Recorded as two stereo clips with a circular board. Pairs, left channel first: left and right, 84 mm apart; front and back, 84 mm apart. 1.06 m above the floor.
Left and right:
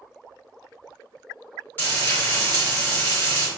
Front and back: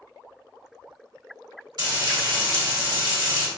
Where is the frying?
155° left, 1.9 m.